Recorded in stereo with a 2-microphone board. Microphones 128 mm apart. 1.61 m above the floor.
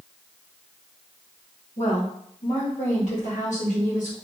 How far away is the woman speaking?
About 1.4 m.